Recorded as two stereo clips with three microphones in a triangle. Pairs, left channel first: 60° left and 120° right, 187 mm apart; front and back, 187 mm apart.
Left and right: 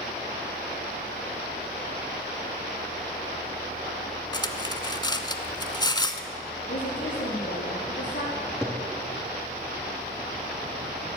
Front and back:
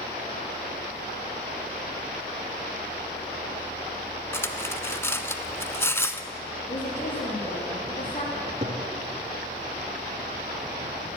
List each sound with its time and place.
4.3 s cutlery clinking: 55° left, 0.7 m
6.7 s a woman speaking: 45° left, 4.5 m
8.3 s a cupboard door: 145° left, 1.9 m